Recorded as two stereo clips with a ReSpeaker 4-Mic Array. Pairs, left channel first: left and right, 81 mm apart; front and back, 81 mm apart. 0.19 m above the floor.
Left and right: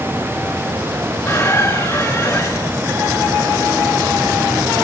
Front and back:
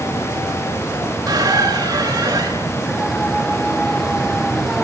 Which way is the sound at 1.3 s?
135° left.